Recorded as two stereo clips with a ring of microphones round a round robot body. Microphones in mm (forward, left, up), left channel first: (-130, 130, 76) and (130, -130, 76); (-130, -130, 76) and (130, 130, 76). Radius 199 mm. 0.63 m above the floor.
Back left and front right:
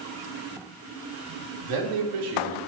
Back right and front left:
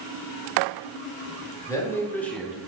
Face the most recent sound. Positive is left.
turn(degrees=-40)